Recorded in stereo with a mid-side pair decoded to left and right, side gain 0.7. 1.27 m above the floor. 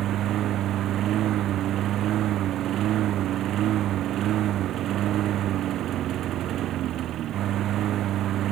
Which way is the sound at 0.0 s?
50° right.